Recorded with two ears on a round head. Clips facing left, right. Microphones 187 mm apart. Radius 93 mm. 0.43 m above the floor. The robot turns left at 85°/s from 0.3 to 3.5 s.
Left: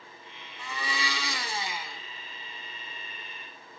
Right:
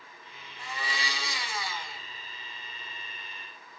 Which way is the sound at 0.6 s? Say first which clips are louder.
Left 2 dB; 110° left.